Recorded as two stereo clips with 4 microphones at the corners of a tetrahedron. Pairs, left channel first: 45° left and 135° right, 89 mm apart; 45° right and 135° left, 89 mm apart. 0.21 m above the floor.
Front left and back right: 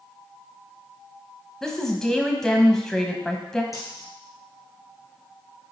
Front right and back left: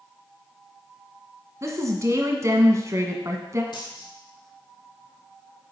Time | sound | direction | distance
1.6 | a woman speaking | 125° left | 1.3 m
3.7 | a dropped coin | 10° right | 3 m